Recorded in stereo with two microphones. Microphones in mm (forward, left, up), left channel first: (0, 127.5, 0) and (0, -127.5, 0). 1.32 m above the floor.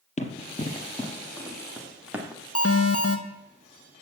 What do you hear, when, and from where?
0.2 s running footsteps: 30° left (ahead or behind), 1.4 m; by 2.4 s 10° right (ahead or behind), 1.8 m
2.5 s an alarm: 65° left (ahead or behind), 1.2 m